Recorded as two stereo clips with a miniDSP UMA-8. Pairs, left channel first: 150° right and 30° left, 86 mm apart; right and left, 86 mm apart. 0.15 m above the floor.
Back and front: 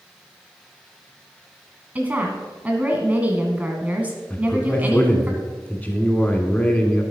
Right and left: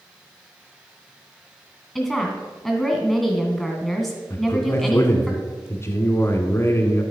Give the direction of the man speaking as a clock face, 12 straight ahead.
3 o'clock.